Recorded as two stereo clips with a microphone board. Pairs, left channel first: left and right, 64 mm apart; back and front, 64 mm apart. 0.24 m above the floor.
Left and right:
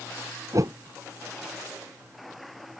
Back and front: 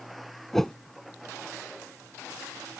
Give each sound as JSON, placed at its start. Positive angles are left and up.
{"t": 0.5, "sound": "a whoosh", "azimuth_deg": -95}